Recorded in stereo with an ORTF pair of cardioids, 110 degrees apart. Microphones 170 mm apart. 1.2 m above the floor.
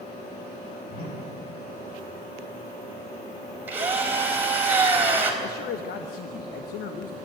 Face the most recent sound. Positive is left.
turn(degrees=65)